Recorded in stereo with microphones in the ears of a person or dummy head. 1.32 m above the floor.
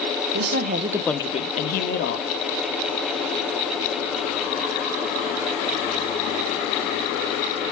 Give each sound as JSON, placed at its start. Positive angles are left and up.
{"t": 0.3, "sound": "a woman speaking", "side_deg": -65, "distance_m": 0.9}